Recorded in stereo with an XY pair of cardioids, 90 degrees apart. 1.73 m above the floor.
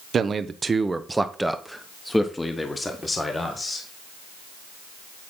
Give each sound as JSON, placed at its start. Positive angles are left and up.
{"t": 0.1, "sound": "a man speaking", "azimuth_deg": -55, "distance_m": 1.0}